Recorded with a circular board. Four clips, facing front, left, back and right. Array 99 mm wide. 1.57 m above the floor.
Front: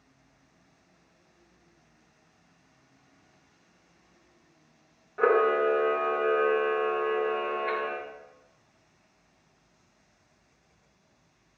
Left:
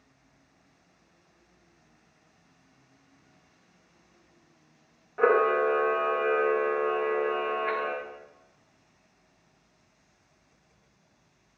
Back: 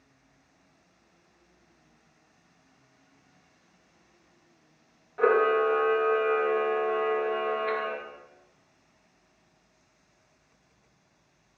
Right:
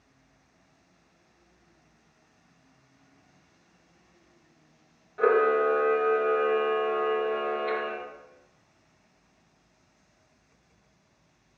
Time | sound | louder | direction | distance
5.2 | a camera shutter | even, even | 75° left | 0.9 m